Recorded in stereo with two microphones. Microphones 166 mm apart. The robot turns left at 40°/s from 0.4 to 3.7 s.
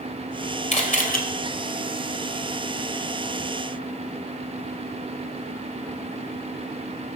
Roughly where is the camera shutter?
Left.